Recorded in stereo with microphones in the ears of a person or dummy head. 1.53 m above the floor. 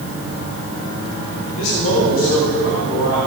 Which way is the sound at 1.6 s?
85° left.